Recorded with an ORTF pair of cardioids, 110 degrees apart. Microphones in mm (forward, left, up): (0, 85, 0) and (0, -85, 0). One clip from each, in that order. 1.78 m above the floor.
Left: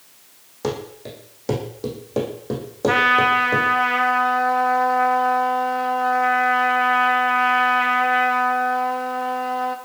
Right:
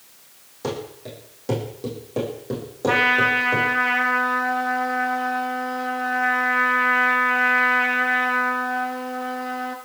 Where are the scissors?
I don't hear scissors.